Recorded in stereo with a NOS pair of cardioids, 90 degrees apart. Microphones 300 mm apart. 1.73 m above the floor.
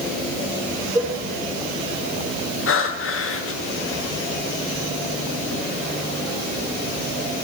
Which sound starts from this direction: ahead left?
Breathing, at 2.7 s.